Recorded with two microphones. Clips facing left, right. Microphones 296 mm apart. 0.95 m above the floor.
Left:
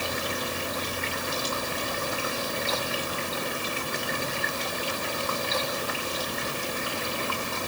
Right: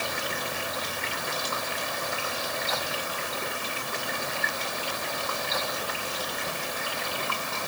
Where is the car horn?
I don't hear a car horn.